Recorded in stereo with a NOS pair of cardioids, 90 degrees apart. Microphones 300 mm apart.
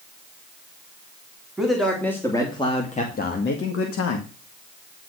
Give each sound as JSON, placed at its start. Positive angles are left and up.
{"t": 1.6, "sound": "a man speaking", "azimuth_deg": 0, "distance_m": 3.5}